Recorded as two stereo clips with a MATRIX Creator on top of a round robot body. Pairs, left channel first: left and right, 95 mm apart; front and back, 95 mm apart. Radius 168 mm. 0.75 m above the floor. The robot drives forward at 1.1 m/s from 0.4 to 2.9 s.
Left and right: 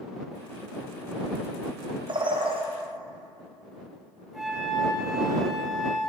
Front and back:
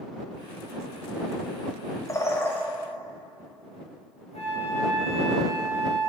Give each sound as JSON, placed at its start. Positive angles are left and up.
{"t": 2.1, "sound": "a bird", "azimuth_deg": -55, "distance_m": 2.0}
{"t": 4.3, "sound": "a flute", "azimuth_deg": -5, "distance_m": 3.0}